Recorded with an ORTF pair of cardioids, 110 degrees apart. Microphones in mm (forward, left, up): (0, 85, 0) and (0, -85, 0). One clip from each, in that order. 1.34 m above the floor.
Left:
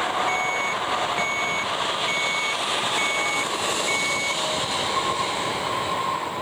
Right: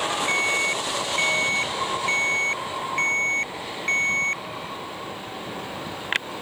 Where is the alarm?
20° right.